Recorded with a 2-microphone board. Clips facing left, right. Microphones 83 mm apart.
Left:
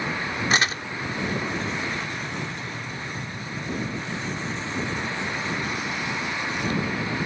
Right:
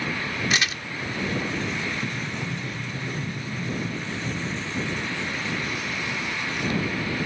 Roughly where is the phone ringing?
No phone ringing in this recording.